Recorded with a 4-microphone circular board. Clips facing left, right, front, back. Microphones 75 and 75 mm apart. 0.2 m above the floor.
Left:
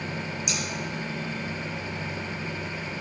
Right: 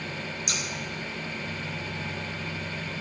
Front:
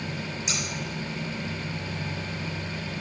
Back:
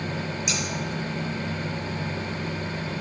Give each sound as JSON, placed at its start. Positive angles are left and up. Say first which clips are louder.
{"t": 0.5, "sound": "scissors", "louder": "left 2 dB, back 2 dB", "azimuth_deg": -60, "distance_m": 2.0}